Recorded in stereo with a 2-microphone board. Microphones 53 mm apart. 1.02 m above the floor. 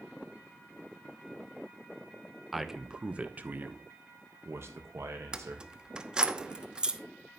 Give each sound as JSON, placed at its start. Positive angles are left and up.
{"t": 2.5, "sound": "a man speaking", "side_deg": 0, "distance_m": 1.0}
{"t": 5.3, "sound": "keys jangling", "side_deg": -15, "distance_m": 0.8}